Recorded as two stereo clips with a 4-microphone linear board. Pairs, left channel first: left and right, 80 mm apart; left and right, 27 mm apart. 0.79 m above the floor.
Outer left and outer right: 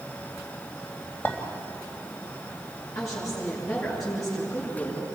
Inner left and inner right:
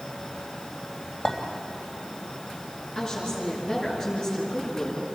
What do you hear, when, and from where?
1.2 s a clink: 25° left (ahead or behind), 3 m
3.0 s a woman speaking: 40° left (ahead or behind), 8.5 m